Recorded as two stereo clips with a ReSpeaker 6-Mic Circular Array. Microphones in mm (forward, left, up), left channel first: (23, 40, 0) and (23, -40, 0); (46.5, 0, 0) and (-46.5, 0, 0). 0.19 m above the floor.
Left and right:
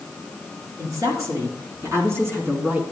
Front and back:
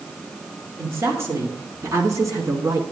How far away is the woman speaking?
About 3 m.